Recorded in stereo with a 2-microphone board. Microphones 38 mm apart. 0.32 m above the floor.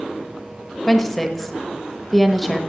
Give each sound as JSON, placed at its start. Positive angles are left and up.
{"t": 0.9, "sound": "a woman speaking", "side_deg": 5, "distance_m": 1.0}